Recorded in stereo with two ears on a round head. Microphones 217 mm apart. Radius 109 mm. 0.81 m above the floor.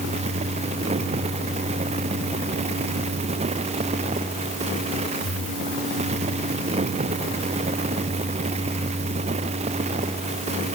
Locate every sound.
Only background noise.